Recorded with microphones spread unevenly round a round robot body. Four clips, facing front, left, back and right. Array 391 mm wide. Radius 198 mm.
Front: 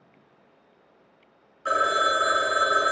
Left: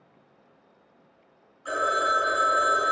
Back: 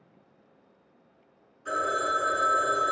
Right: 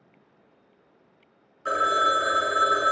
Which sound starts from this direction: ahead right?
A phone ringing, at 1.6 s.